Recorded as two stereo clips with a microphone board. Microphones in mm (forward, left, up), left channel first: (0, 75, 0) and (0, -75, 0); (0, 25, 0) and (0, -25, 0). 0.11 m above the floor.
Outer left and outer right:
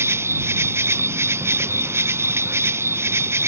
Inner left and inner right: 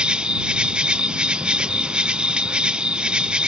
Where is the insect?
15° right (ahead or behind).